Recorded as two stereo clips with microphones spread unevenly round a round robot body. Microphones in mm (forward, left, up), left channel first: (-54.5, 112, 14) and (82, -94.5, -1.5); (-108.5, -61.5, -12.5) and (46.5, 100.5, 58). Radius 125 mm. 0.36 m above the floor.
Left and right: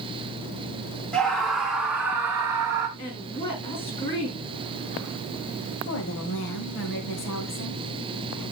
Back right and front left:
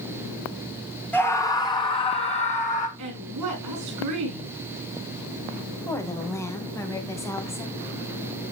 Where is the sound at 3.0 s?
55° left, 7 m.